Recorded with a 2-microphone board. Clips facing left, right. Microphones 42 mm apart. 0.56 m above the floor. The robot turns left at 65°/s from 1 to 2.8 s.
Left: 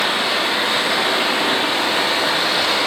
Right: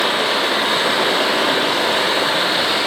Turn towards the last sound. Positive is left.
turn(degrees=-170)